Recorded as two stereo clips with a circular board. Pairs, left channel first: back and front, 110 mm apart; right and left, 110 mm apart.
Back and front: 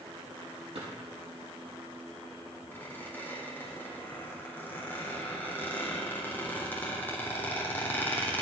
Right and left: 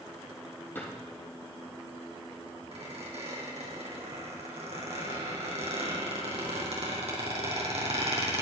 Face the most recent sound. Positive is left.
turn(degrees=110)